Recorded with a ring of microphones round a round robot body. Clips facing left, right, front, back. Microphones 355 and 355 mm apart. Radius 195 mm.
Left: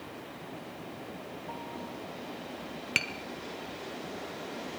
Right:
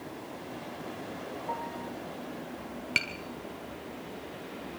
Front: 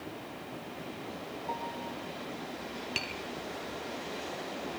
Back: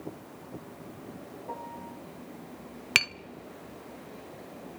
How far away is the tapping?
About 0.7 m.